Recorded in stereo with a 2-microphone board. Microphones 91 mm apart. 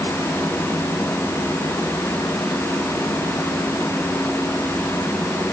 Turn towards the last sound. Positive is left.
No sound to turn to.